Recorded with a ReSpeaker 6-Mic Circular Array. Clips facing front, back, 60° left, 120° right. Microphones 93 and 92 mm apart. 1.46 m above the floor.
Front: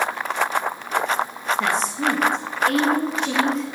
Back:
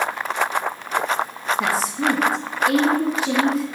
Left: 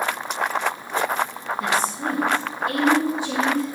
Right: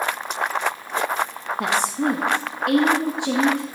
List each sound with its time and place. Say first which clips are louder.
1.6 s a woman speaking: back 1 dB, right 2 dB; 95° right, 1.4 m